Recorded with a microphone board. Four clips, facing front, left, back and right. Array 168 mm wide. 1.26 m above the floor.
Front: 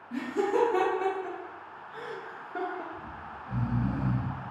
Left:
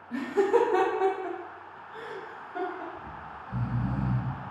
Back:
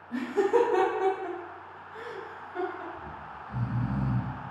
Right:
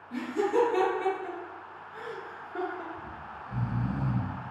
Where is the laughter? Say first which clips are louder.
Left 3 dB, back 3 dB; 125° left, 1.0 m; by 2.8 s 25° right, 0.7 m.